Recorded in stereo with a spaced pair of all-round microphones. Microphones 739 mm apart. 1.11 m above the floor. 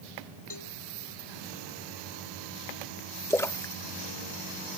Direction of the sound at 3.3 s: 5° left (ahead or behind).